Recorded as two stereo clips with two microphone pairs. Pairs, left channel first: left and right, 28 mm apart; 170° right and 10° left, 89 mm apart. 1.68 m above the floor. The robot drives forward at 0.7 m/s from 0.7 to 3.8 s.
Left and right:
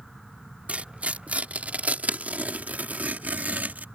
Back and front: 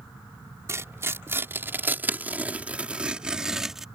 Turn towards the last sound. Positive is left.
turn(degrees=-80)